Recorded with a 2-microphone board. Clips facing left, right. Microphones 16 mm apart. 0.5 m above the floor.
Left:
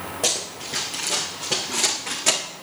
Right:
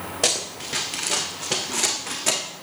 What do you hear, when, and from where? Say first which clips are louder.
0.2 s running footsteps: right 1 dB; 50° right (ahead or behind), 3 m; by 2.4 s 10° left (ahead or behind), 2.5 m